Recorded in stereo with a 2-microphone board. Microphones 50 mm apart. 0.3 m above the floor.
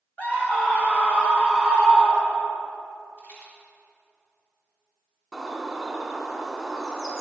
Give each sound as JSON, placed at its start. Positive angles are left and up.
{"t": 0.2, "sound": "a scream", "side_deg": 30, "distance_m": 1.3}
{"t": 3.2, "sound": "a rattle", "side_deg": 40, "distance_m": 1.7}
{"t": 5.3, "sound": "a bird", "side_deg": -5, "distance_m": 0.9}